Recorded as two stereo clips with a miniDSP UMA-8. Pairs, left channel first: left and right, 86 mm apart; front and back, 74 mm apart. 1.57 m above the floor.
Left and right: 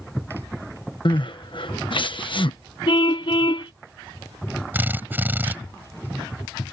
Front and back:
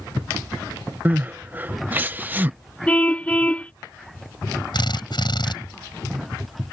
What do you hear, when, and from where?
1.1 s crying: 115° left
2.9 s a car horn: 70° left
4.7 s a drill: 20° right